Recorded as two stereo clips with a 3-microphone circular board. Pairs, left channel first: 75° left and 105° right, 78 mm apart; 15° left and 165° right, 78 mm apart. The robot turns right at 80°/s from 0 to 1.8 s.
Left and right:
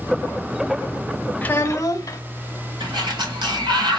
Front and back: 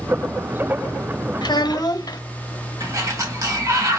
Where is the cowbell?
I don't hear a cowbell.